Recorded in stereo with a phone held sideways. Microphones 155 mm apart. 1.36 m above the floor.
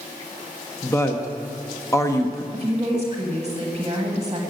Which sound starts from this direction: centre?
A woman speaking, at 0.8 s.